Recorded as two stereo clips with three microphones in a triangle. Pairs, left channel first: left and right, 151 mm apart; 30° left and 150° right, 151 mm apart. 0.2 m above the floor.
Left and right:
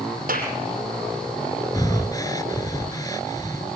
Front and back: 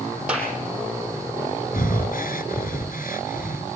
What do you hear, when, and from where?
0.3 s a clap: 65° right, 5.5 m
1.7 s breathing: 25° left, 1.4 m